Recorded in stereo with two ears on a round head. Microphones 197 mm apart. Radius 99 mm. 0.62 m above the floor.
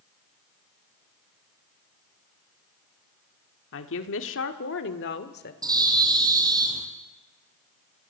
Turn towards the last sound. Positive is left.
turn(degrees=-15)  # may be behind; listen again after turning